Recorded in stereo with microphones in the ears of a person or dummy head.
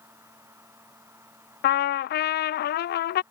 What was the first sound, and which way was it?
A fan, 15° right (ahead or behind).